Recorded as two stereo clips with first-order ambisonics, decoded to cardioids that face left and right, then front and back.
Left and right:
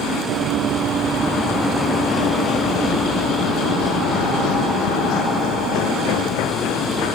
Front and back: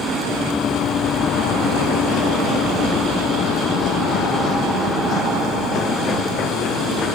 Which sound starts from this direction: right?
Running footsteps, at 0.3 s.